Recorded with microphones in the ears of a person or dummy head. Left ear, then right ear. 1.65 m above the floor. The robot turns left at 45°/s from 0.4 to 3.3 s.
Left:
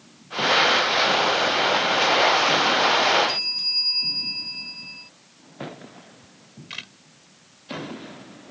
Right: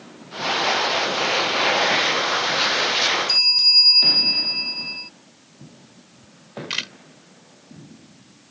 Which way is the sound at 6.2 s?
40° right (ahead or behind).